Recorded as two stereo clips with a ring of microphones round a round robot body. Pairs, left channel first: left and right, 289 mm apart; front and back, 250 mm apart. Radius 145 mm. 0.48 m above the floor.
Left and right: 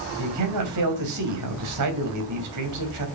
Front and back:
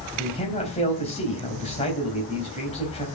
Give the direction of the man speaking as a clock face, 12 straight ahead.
2 o'clock.